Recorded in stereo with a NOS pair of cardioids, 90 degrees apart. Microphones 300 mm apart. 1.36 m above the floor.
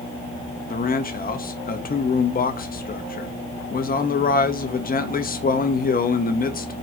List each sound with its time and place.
0.7 s a man speaking: 30° left, 0.9 m